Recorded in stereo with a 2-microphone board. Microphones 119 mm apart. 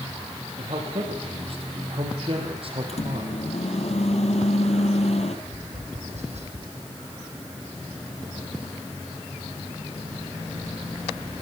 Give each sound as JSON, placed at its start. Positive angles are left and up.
{"t": 0.6, "sound": "a man speaking", "side_deg": -55, "distance_m": 5.0}
{"t": 2.9, "sound": "a microwave", "side_deg": 60, "distance_m": 2.5}
{"t": 5.5, "sound": "tapping", "side_deg": -70, "distance_m": 3.5}